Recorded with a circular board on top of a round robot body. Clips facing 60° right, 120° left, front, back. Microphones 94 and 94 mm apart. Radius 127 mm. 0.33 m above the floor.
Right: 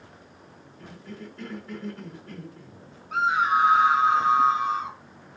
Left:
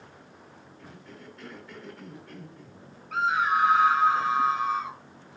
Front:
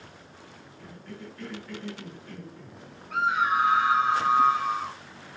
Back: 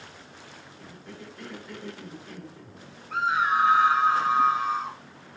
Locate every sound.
0.8 s a cough: 105° right, 4.5 m
3.1 s a scream: 120° right, 3.5 m